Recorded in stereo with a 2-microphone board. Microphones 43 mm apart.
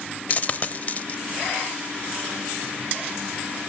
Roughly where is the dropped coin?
Left.